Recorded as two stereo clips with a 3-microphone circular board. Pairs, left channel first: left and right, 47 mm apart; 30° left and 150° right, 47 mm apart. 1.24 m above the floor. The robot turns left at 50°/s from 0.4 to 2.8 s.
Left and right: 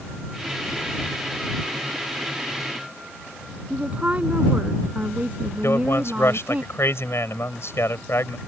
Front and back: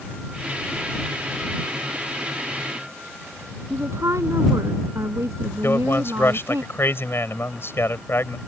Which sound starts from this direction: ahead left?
A man speaking, at 5.6 s.